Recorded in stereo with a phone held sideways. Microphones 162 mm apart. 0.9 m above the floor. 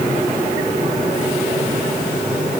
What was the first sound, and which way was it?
Only background noise.